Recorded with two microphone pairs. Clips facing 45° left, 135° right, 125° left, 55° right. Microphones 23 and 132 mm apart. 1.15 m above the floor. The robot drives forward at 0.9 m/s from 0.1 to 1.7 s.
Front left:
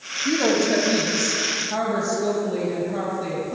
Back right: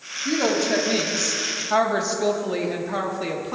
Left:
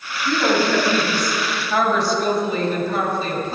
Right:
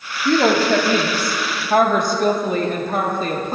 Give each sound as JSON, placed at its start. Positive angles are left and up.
{"t": 0.2, "sound": "a woman speaking", "azimuth_deg": -50, "distance_m": 1.8}